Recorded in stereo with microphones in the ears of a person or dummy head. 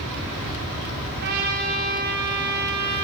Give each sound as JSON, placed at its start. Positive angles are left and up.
{"t": 1.2, "sound": "a trumpet", "side_deg": -55, "distance_m": 6.5}